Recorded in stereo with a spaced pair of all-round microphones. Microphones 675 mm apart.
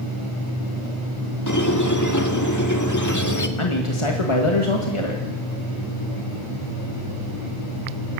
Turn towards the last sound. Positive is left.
turn(degrees=45)  # may be behind; listen again after turning